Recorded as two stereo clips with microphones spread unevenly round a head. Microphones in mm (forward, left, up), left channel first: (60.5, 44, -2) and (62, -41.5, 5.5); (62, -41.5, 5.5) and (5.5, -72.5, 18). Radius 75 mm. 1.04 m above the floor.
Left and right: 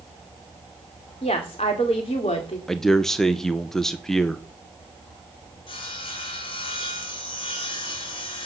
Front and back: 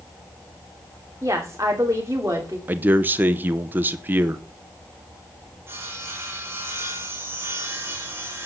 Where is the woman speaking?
140° left, 2.5 m.